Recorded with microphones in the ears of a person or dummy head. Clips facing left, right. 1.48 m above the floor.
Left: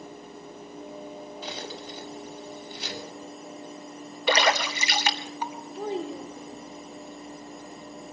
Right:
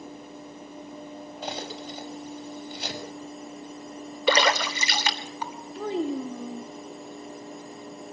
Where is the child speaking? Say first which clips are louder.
Right 4 dB; 60° right (ahead or behind), 2 m.